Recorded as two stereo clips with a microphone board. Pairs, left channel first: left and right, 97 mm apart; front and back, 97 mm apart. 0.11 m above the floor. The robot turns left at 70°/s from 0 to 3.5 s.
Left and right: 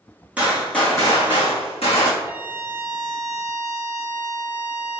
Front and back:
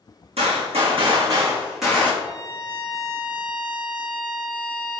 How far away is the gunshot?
About 1.6 m.